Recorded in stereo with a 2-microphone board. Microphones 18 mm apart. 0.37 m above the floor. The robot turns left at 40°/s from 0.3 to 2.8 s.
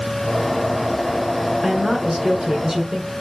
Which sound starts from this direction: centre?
A woman speaking, at 1.6 s.